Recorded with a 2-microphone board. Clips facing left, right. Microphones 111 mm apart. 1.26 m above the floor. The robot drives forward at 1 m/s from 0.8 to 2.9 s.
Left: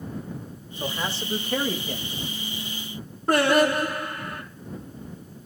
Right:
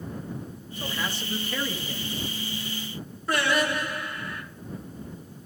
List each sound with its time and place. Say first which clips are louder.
0.8 s a man speaking: left 3 dB; 25° left (ahead or behind), 2 m; by 2.2 s 60° left (ahead or behind), 1.0 m
3.3 s singing: left 6 dB; 45° left (ahead or behind), 2 m